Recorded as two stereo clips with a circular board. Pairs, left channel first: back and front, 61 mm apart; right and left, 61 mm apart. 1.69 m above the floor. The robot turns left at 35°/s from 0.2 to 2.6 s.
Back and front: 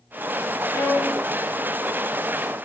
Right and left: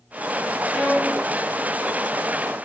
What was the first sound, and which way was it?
A violin, straight behind.